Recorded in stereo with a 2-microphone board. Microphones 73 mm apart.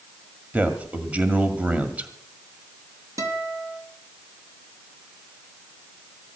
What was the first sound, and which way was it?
A man speaking, 20° right (ahead or behind).